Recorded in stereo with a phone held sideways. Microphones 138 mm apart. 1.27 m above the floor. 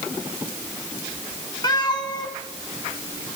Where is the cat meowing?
30° left (ahead or behind), 2 m.